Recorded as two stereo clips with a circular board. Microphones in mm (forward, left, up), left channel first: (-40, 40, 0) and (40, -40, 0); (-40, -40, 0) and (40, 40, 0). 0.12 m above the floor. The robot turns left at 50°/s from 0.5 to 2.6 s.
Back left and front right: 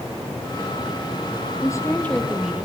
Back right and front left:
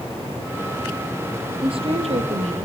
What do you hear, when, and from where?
1.6 s a woman speaking: 80° left, 4 m; by 2.6 s 30° left, 4 m